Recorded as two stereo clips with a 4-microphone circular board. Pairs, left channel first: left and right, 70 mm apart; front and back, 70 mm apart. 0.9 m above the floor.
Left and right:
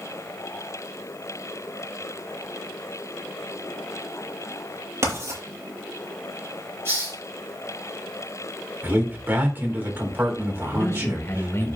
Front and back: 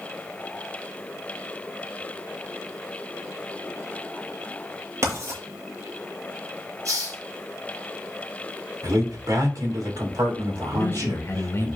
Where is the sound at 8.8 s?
150° right, 3.5 m.